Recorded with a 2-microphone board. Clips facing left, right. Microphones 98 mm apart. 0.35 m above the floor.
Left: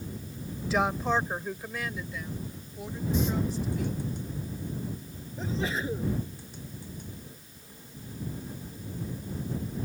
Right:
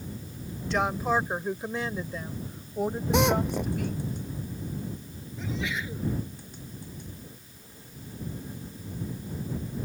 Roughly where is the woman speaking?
Centre.